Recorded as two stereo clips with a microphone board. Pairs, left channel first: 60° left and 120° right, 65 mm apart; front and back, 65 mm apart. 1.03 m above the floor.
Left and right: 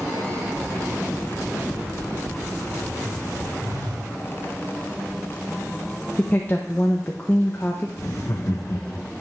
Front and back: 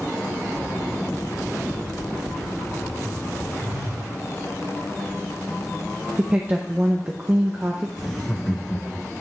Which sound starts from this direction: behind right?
A phone buzzing, at 3.6 s.